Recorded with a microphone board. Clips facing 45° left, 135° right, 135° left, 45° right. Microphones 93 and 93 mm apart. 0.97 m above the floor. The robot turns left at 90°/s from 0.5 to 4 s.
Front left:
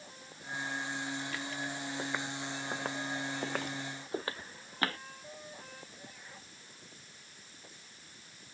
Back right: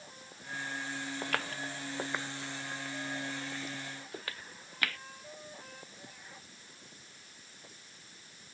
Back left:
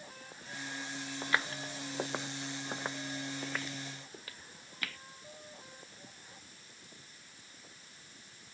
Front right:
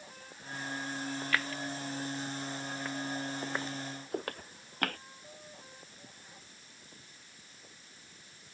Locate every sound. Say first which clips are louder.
1.2 s footsteps: back right 2 dB, back left 2 dB; 145° right; by 5.0 s 10° right